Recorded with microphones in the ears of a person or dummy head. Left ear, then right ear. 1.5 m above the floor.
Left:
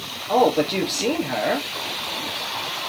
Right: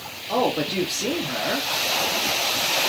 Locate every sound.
0.3 s a man speaking: 20° left (ahead or behind), 0.7 m